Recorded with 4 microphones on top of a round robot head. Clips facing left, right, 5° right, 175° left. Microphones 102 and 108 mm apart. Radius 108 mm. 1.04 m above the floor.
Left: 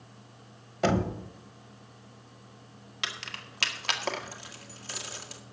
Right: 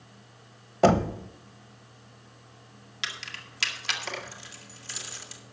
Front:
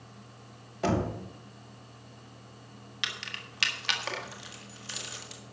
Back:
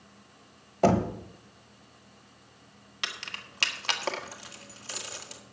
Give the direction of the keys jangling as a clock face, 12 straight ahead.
8 o'clock.